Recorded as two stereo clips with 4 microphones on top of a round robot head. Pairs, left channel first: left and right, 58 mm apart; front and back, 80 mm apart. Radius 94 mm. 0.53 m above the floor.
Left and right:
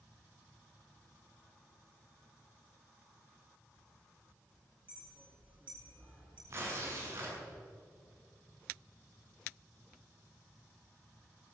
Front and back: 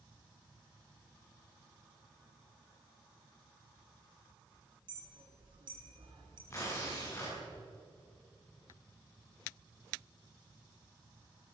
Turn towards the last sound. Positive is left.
turn(degrees=-55)